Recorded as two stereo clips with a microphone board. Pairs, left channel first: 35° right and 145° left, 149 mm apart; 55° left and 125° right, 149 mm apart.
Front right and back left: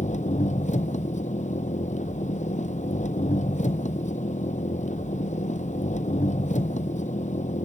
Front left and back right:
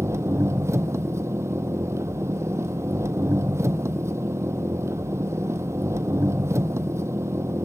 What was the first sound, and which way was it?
An engine running, 55° right.